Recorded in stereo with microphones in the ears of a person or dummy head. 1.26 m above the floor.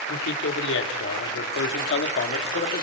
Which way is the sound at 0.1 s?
85° left.